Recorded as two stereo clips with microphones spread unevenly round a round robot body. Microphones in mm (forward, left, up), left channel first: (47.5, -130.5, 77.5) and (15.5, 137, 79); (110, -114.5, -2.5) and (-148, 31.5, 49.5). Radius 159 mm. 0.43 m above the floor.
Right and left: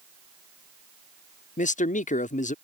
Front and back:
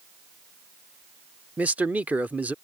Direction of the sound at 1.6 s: 110° right.